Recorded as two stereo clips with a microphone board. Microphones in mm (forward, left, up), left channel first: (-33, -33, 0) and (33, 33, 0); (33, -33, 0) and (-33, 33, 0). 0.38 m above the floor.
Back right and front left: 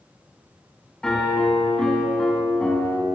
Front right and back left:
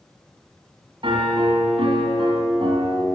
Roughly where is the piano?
Behind left.